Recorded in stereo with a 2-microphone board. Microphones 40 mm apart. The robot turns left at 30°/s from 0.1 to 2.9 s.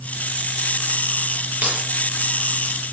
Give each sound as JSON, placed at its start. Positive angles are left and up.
{"t": 1.6, "sound": "keys jangling", "side_deg": -35, "distance_m": 9.0}